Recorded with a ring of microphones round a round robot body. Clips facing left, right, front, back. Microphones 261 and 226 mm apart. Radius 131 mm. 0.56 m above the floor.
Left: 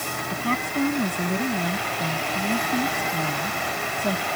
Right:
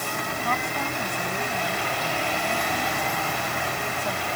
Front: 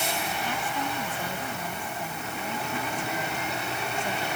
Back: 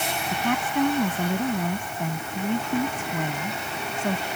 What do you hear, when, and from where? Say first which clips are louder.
0.3 s a woman speaking: left 7 dB, back 7 dB; 150° left